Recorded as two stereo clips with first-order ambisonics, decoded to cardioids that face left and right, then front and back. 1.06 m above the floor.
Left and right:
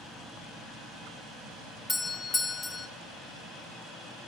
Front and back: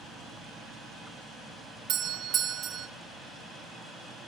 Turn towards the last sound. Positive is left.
turn(degrees=160)